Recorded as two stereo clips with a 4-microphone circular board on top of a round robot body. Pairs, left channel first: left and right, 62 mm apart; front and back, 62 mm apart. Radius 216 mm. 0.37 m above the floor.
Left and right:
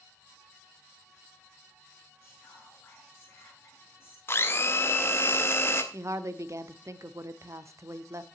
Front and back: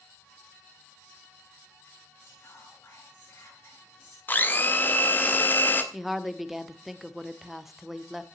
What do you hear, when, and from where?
2.2 s whispering: 35° left, 8 m
4.3 s a blender: 50° left, 1.9 m
5.9 s a woman speaking: 95° right, 1.3 m